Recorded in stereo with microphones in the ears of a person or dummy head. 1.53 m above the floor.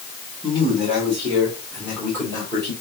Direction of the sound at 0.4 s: Centre (ahead or behind).